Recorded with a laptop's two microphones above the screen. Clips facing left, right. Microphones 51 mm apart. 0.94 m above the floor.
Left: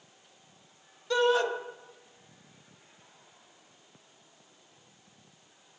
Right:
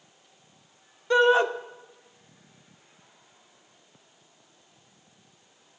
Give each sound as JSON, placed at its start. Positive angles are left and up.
{"t": 1.1, "sound": "a shout", "side_deg": -30, "distance_m": 0.8}